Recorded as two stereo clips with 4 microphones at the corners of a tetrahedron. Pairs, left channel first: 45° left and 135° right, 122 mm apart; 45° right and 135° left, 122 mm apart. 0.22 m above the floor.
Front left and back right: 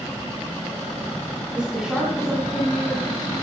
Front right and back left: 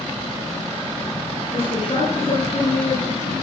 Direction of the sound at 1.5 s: 55° right.